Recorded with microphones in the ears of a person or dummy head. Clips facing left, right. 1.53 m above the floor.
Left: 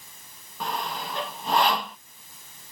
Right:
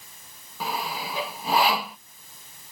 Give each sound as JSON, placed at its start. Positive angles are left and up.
{"t": 0.6, "sound": "sawing", "side_deg": -5}